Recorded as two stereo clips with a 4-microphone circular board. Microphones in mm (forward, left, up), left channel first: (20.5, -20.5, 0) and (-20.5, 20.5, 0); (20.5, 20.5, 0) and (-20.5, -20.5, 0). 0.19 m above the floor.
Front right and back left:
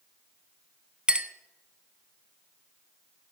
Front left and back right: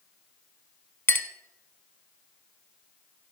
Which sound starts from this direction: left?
A clink, at 1.1 s.